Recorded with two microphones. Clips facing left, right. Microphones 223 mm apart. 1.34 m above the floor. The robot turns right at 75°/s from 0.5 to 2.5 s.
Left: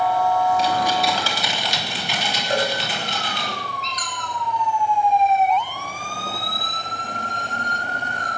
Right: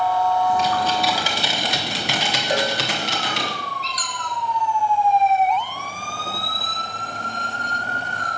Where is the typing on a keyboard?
145° left, 3 m; by 3.5 s 70° right, 3 m.